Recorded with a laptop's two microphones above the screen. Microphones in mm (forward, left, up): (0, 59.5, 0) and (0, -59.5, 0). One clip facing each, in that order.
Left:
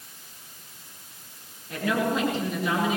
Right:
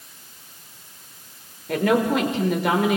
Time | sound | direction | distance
1.7 | a woman speaking | 70° right (ahead or behind) | 4 m